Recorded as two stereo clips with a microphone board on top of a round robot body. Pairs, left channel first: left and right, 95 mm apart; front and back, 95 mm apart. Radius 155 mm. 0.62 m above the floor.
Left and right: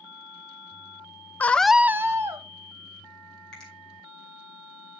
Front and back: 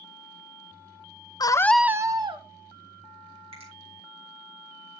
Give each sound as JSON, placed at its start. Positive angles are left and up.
{"t": 1.4, "sound": "a scream", "azimuth_deg": 20, "distance_m": 0.8}
{"t": 3.5, "sound": "a finger snap", "azimuth_deg": 175, "distance_m": 5.0}